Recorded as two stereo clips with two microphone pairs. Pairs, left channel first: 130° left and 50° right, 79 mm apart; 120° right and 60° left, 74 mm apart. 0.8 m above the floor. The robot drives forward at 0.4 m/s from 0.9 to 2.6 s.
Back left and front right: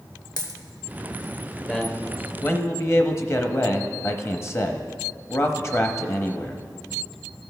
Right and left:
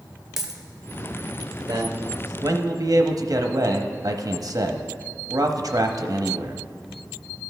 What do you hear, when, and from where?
0.4 s a dropped coin: 145° left, 0.9 m
1.7 s a man speaking: 55° left, 0.9 m; by 6.6 s 80° left, 0.8 m